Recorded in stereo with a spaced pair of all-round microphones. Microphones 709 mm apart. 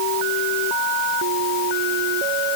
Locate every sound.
Only background noise.